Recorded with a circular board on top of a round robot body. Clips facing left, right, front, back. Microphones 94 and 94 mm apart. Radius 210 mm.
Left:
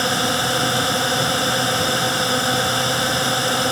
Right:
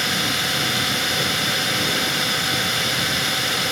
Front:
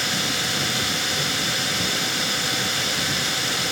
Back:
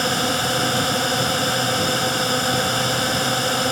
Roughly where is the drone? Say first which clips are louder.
Left 5 dB, back 6 dB; behind left.